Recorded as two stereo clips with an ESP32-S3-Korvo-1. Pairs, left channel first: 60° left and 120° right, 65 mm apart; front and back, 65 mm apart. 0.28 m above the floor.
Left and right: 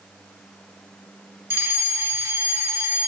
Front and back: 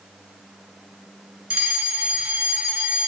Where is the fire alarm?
115° right, 2.5 m.